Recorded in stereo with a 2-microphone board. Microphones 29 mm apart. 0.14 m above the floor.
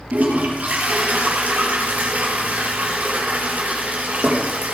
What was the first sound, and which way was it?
A toilet flushing, 65° right (ahead or behind).